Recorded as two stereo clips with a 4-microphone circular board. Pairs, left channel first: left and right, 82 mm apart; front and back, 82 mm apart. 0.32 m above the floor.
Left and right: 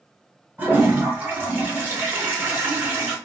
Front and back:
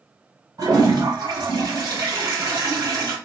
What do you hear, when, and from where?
0.6 s a toilet flushing: 155° right, 1.6 m